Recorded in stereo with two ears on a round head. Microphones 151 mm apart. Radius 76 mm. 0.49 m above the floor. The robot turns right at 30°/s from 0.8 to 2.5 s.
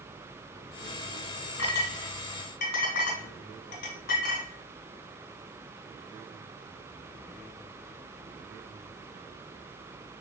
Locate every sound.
1.6 s a clink: 80° left, 2.5 m; by 4.5 s 60° left (ahead or behind), 2.5 m